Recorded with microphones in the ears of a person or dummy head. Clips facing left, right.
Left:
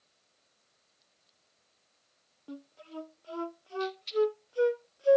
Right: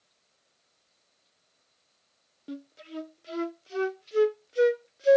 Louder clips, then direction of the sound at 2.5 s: Right 5 dB; 20° right (ahead or behind).